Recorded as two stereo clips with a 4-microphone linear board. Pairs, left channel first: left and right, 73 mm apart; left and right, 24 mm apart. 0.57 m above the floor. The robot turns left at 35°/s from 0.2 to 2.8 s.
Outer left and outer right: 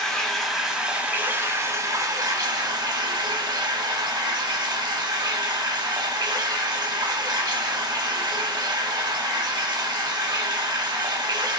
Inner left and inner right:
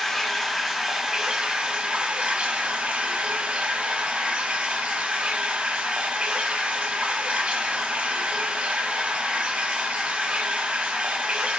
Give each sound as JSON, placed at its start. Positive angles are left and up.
{"t": 0.0, "sound": "running water", "azimuth_deg": 10, "distance_m": 0.7}